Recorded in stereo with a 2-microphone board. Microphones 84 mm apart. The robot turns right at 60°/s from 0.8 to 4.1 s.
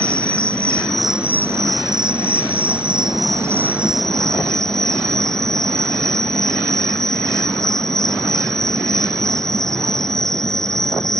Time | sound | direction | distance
0.0 | an insect | 170° left | ?